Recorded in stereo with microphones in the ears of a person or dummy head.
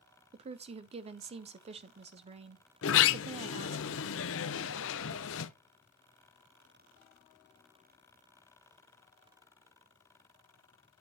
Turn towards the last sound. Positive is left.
turn(degrees=70)  # may be behind; listen again after turning